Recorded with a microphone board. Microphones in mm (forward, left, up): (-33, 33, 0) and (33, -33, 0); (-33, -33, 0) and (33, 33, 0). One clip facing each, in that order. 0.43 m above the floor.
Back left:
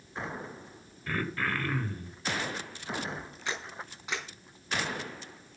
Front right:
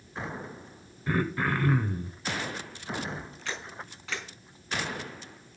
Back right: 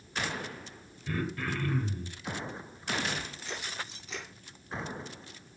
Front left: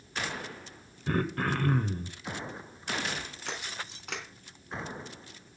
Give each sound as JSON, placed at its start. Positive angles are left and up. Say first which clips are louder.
{"t": 1.1, "sound": "throat clearing", "louder": "front right 4 dB, front left 4 dB", "azimuth_deg": 25, "distance_m": 1.6}
{"t": 3.5, "sound": "a camera shutter", "louder": "back left 2 dB, even", "azimuth_deg": 65, "distance_m": 4.0}